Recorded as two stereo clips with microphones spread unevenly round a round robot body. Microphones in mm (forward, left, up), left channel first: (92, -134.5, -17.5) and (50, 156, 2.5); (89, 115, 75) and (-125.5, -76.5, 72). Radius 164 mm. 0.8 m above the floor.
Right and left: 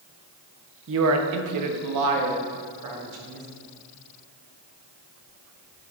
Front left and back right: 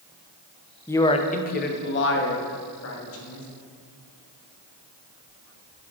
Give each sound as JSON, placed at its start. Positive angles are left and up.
{"t": 0.9, "sound": "a man speaking", "azimuth_deg": 125, "distance_m": 0.5}